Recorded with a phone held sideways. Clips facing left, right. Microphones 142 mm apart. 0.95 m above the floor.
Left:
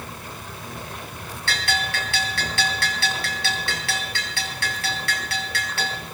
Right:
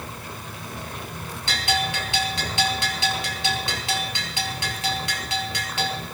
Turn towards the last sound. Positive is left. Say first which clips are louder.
# right 2 dB
turn(degrees=-20)  # may be behind; listen again after turning